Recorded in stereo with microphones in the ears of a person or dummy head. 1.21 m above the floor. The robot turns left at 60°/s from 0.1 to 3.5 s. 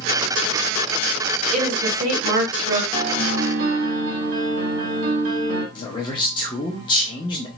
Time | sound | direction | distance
1.5 | a woman speaking | 5° right | 1.7 m
2.9 | a piano | 40° right | 1.6 m
5.8 | a man speaking | 25° left (ahead or behind) | 0.6 m